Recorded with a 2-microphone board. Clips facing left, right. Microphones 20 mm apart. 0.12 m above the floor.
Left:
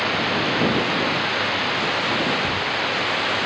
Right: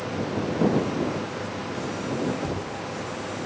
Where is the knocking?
45° right (ahead or behind).